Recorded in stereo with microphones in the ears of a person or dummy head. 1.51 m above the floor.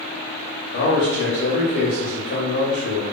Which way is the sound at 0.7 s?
75° left (ahead or behind).